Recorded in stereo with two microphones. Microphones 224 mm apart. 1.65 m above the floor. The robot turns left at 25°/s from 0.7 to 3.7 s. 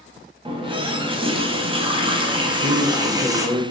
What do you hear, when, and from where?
0.5 s a running tap: 25° right (ahead or behind), 0.7 m; by 3.5 s 15° right (ahead or behind), 0.7 m
2.5 s a man speaking: 60° right (ahead or behind), 1.0 m; by 3.6 s 40° right (ahead or behind), 1.0 m